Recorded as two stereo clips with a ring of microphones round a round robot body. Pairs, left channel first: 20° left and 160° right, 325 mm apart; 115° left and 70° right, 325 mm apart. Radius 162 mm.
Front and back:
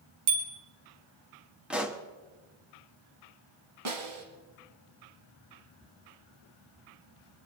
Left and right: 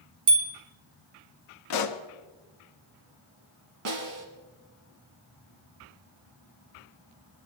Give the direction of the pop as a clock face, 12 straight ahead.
8 o'clock.